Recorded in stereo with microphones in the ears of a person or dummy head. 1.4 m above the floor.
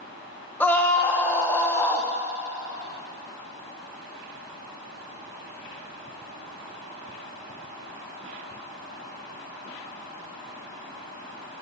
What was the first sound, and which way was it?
A scream, 10° left (ahead or behind).